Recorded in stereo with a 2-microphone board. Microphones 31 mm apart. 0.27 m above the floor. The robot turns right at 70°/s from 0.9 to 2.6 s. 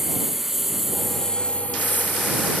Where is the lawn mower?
10° right; by 2.6 s 110° left.